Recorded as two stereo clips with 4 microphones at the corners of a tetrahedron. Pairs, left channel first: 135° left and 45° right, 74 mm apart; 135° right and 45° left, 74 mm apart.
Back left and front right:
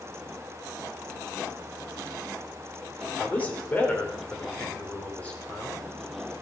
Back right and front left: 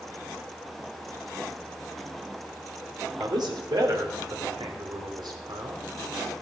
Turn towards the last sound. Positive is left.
turn(degrees=65)